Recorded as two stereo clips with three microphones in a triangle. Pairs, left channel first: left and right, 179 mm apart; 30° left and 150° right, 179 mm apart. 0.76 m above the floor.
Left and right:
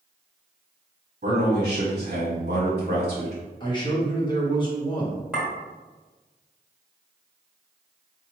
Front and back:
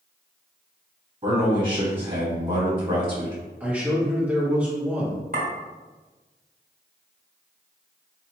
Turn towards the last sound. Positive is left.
turn(degrees=-175)